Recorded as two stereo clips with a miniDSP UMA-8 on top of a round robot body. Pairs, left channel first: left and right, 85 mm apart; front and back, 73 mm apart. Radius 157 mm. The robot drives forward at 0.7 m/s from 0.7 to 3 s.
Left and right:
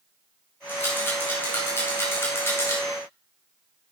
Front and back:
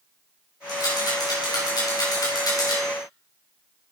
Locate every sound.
0.7 s a rattle: 25° left, 5.5 m; by 2.8 s 35° left, 4 m